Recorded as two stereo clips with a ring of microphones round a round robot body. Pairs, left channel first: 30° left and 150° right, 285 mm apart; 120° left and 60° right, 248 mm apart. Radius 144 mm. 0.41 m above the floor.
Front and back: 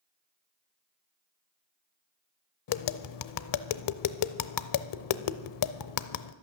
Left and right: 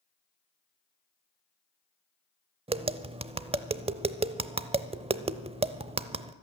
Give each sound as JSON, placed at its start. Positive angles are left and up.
{"t": 2.7, "sound": "tapping", "azimuth_deg": 10, "distance_m": 0.6}